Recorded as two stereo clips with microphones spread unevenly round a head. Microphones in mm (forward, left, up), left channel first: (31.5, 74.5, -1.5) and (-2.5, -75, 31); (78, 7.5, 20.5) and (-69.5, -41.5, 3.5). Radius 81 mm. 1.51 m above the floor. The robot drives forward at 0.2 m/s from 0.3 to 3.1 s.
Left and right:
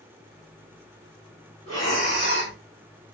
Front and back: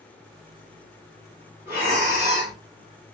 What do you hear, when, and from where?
1.7 s breathing: 85° right, 2.0 m; by 2.6 s 90° right, 2.0 m